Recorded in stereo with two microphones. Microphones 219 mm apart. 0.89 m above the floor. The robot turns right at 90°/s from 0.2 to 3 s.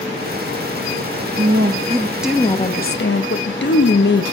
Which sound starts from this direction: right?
A woman speaking, at 1.4 s.